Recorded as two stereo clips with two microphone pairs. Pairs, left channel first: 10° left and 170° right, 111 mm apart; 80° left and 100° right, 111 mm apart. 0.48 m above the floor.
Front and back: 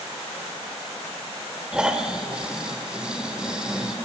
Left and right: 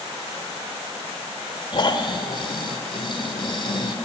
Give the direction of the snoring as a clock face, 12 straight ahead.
8 o'clock.